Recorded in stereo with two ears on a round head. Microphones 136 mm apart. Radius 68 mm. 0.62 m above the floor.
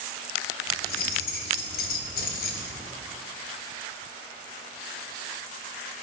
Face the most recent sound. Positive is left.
turn(degrees=65)  # may be behind; listen again after turning